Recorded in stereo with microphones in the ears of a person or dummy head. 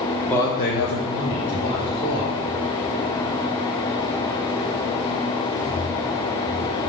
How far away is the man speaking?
About 0.6 m.